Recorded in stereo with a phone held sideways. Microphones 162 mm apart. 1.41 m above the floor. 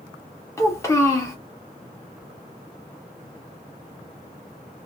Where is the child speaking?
20° left (ahead or behind), 1.2 m.